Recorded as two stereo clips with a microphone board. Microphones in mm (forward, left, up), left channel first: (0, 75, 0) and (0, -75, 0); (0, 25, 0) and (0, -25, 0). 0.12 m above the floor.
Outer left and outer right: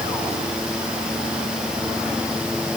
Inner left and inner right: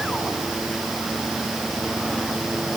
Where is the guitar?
I don't hear a guitar.